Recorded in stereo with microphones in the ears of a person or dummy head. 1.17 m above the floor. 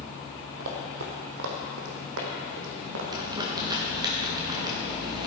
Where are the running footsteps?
60° right (ahead or behind), 2.5 m; by 3.0 s 65° right (ahead or behind), 3.5 m.